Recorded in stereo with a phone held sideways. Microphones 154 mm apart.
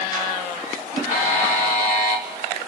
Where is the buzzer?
55° left (ahead or behind), 1.8 m.